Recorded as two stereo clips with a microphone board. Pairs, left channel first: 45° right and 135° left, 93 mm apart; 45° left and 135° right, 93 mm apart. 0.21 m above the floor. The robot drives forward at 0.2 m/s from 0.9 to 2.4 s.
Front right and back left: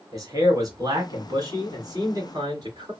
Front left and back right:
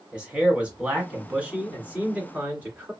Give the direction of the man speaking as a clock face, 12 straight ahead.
7 o'clock.